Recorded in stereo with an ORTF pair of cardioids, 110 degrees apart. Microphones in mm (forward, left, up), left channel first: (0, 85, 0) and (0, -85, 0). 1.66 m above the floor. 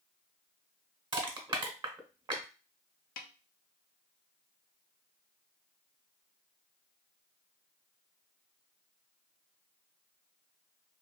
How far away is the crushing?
About 1.3 m.